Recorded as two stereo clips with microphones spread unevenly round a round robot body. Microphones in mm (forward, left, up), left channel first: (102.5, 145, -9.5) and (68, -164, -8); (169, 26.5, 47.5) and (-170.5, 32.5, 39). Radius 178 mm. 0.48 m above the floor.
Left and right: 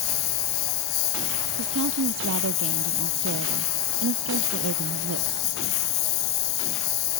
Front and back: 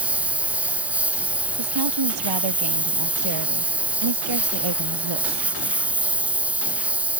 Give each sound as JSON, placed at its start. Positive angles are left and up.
{"t": 0.0, "sound": "a lawn mower", "azimuth_deg": 95}
{"t": 1.6, "sound": "a woman speaking", "azimuth_deg": -155}